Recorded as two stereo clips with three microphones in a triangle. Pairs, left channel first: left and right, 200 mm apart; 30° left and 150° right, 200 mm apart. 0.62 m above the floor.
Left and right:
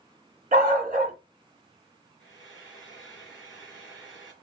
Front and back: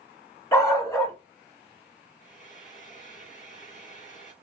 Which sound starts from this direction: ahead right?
A dog barking, at 0.5 s.